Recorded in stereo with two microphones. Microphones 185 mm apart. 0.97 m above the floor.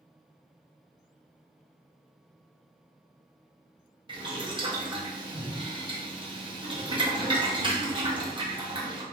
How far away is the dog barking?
No dog barking in this recording.